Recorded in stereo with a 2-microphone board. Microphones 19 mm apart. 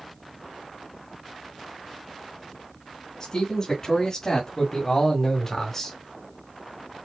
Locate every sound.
3.2 s a man speaking: 40° left (ahead or behind), 3 m; by 6.0 s 20° left (ahead or behind), 1.4 m